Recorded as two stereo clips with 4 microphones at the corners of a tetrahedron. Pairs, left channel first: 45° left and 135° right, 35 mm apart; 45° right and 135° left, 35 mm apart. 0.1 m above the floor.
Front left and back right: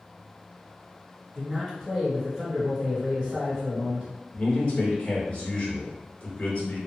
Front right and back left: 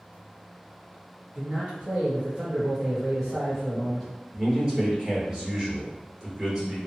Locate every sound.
1.4 s a man speaking: 140° left, 1.8 m; by 4.1 s 145° right, 2 m
4.3 s a man speaking: 80° left, 1.7 m